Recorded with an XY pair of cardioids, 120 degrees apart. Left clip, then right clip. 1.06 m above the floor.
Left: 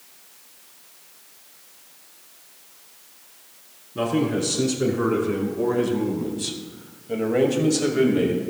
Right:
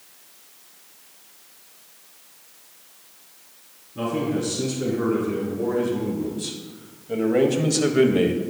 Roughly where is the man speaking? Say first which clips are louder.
Left 2 dB; ahead left.